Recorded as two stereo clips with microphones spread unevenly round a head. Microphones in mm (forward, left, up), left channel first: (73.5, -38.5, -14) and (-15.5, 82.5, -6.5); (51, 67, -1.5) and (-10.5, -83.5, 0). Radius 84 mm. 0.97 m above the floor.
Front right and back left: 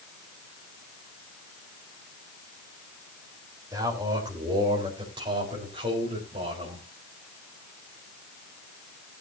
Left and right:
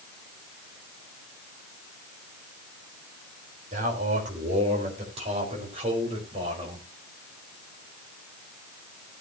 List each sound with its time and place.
3.7 s a man speaking: 160° right, 3.5 m; by 6.8 s 175° right, 5.5 m